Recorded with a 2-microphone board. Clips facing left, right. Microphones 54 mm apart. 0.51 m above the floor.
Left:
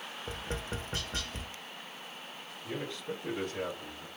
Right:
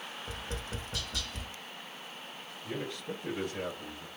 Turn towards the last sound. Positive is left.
turn(degrees=-5)  # may be behind; listen again after turning